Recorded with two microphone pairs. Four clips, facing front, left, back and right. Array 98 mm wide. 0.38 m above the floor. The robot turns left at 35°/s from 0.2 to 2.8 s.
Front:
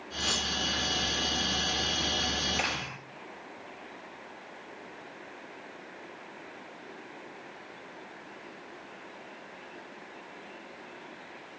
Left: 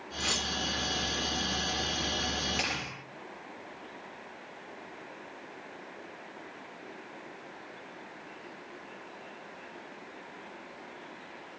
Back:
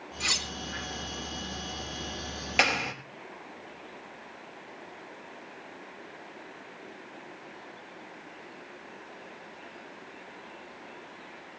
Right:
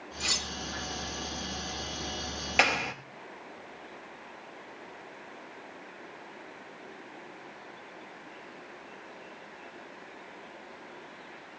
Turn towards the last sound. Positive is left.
turn(degrees=-130)